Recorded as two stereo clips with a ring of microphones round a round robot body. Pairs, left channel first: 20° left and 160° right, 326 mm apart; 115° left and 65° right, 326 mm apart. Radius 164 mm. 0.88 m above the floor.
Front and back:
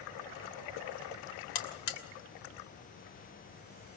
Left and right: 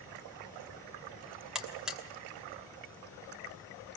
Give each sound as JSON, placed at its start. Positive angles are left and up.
{"t": 1.6, "sound": "a buzzer", "azimuth_deg": 20, "distance_m": 2.5}